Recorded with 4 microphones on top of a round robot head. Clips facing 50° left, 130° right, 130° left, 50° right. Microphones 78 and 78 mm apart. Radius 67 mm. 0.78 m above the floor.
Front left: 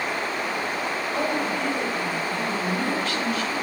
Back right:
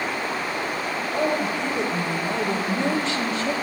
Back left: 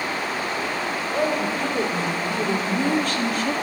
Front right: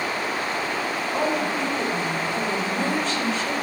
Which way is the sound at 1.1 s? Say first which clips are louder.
Back right 3 dB, back left 1 dB; 160° left.